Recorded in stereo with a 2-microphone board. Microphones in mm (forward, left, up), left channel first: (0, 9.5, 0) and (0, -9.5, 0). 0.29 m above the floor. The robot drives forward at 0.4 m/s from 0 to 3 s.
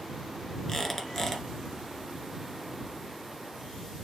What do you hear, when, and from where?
0.7 s a squeak: 20° left (ahead or behind), 1.6 m; by 1.4 s 15° left (ahead or behind), 1.8 m